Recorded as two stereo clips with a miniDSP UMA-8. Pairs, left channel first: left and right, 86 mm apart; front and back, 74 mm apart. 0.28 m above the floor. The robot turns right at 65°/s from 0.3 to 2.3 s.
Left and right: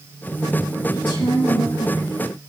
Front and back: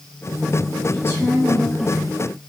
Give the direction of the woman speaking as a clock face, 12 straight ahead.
10 o'clock.